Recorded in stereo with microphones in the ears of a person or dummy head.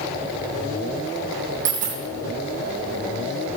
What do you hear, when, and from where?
1.6 s a dropped coin: 40° right (ahead or behind), 2.5 m